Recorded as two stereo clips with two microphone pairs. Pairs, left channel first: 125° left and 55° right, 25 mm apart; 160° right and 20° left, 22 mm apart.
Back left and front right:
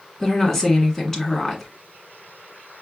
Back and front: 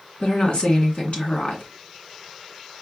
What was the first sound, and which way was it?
A woman speaking, 160° right.